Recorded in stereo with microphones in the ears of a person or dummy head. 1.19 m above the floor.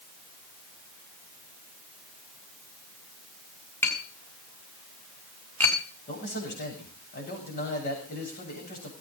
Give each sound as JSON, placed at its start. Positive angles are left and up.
{"t": 3.8, "sound": "tapping", "side_deg": 10, "distance_m": 4.0}
{"t": 6.1, "sound": "a man speaking", "side_deg": 50, "distance_m": 7.5}